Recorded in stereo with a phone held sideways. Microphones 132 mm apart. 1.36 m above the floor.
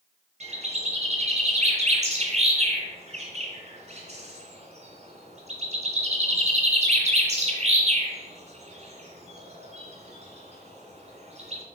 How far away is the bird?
About 2.5 m.